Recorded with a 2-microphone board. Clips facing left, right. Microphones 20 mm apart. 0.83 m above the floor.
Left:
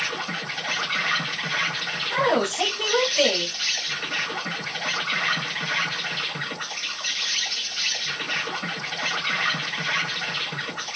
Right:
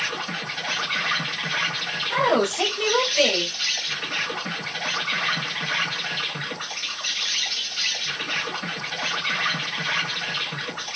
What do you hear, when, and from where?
0.0 s an insect: 10° right (ahead or behind), 1.2 m
2.1 s a woman speaking: 15° right (ahead or behind), 1.6 m